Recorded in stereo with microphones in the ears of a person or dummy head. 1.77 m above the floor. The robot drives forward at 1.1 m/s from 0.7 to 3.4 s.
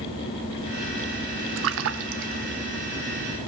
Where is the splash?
65° right (ahead or behind), 1.2 m; by 2.5 s 50° right (ahead or behind), 1.5 m.